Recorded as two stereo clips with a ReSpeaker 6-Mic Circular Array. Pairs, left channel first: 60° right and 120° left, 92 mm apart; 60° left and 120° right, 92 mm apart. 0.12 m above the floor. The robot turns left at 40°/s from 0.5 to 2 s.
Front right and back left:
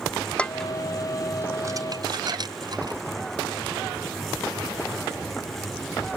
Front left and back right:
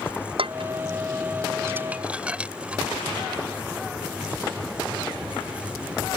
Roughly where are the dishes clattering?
Behind right.